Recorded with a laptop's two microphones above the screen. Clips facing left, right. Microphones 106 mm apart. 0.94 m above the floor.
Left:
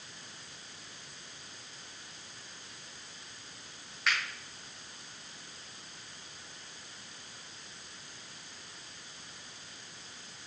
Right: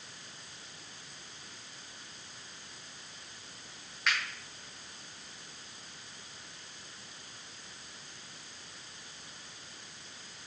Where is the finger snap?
Centre (ahead or behind), 0.9 m.